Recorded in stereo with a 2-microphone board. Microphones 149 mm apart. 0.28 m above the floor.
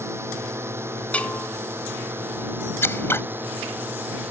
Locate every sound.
0.0 s a drone: 20° right (ahead or behind); by 4.3 s 15° right (ahead or behind)
1.1 s a bell: 10° left (ahead or behind)
2.8 s scissors: 15° left (ahead or behind)